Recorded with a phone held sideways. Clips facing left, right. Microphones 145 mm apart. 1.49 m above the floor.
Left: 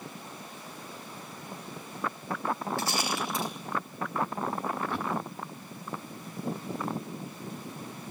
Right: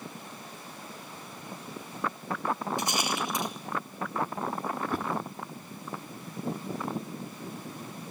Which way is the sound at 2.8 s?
15° right (ahead or behind).